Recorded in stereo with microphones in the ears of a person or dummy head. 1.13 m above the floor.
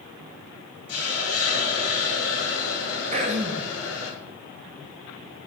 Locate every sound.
0.9 s a hiss: 75° left (ahead or behind), 2.0 m
3.1 s throat clearing: 40° right (ahead or behind), 1.2 m